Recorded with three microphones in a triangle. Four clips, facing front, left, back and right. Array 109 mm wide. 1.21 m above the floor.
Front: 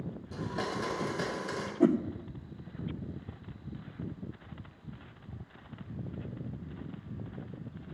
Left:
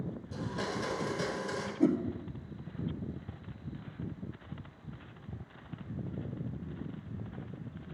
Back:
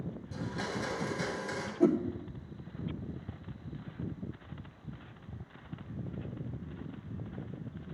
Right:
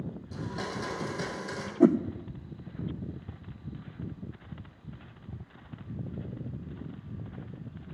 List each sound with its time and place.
0.3 s a blender: 15° right, 3 m
1.8 s a whoosh: 85° right, 0.6 m